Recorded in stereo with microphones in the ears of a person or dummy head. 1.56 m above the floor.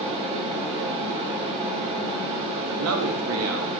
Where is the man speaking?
75° right (ahead or behind), 1.1 m.